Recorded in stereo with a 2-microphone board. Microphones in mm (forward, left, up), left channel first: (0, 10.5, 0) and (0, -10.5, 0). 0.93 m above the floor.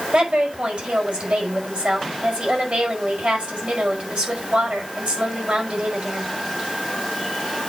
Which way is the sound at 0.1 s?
70° right (ahead or behind).